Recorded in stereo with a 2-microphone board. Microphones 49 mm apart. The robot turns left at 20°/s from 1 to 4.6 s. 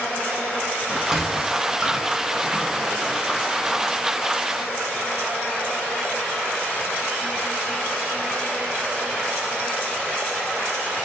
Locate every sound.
0.9 s a sliding door: 10° right (ahead or behind), 0.6 m; by 4.2 s 20° right (ahead or behind), 0.6 m